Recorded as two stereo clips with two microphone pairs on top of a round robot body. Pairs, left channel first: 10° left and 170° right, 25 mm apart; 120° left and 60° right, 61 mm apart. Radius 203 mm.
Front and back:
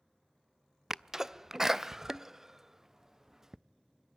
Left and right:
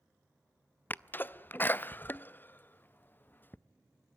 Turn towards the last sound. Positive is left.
turn(degrees=115)